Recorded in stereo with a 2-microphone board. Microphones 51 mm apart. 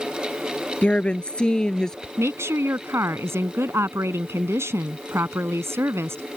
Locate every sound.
0.8 s a woman speaking: 25° left (ahead or behind); by 2.1 s 10° left (ahead or behind)
2.2 s a woman speaking: 60° right (ahead or behind)